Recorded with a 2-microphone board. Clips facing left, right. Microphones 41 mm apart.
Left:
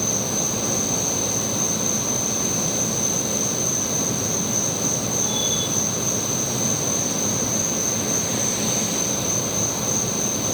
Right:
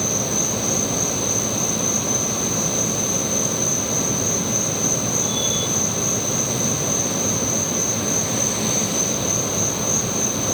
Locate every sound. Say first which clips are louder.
0.0 s an insect: right 2 dB; 10° left (ahead or behind), 9.5 m